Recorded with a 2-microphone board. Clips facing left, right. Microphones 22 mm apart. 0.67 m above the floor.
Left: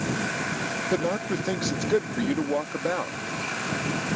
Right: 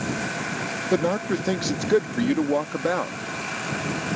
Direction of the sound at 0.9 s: 15° right (ahead or behind).